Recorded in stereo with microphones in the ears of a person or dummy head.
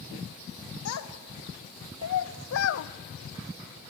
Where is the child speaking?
80° left, 2.5 m; by 2.9 s 60° left (ahead or behind), 1.0 m.